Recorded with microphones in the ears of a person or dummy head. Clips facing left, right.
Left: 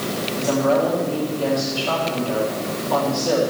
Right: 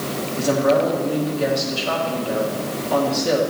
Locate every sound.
0.4 s a woman speaking: 15° right (ahead or behind), 3 m